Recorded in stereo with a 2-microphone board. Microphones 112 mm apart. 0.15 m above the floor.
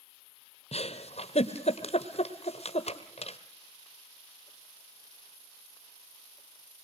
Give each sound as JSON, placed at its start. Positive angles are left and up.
{"t": 0.7, "sound": "a giggle", "side_deg": 75, "distance_m": 1.1}